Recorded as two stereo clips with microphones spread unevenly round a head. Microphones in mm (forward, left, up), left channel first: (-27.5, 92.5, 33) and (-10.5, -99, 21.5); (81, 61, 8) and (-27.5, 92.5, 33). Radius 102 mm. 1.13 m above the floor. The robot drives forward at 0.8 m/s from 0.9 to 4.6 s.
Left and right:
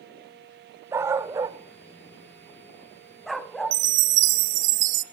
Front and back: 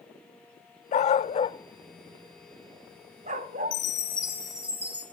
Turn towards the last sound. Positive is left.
turn(degrees=-115)